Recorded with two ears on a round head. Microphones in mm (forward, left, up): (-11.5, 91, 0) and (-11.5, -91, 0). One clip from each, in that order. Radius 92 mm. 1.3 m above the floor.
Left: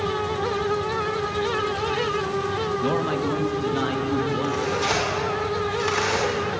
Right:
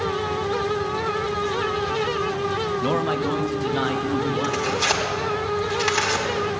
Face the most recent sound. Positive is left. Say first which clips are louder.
# right 2 dB
turn(degrees=-50)  # may be behind; listen again after turning